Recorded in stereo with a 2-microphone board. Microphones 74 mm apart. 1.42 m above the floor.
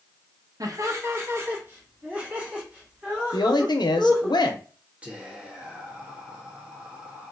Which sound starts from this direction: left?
A woman speaking, at 3.3 s.